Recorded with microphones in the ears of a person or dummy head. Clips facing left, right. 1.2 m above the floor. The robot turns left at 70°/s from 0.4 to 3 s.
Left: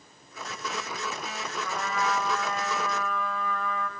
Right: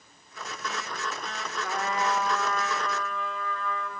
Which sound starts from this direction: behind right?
A trumpet, at 1.6 s.